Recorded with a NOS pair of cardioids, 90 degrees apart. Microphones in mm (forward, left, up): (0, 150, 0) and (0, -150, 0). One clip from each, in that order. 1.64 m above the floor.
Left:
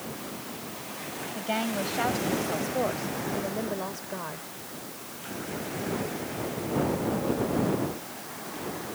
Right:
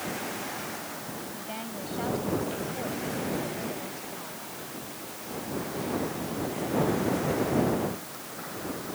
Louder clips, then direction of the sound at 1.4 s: Left 8 dB; 70° left.